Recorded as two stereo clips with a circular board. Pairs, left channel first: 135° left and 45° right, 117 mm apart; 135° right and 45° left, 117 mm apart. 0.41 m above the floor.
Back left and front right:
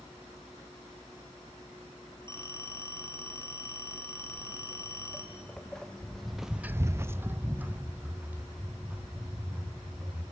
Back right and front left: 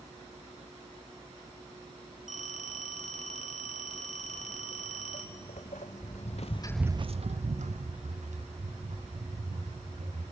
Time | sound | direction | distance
2.3 | a phone ringing | 155° right | 2.5 m
4.2 | footsteps | 145° right | 4 m